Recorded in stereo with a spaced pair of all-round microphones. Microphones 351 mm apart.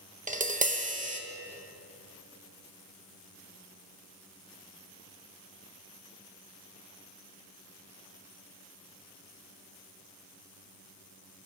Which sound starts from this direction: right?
Tapping, at 0.3 s.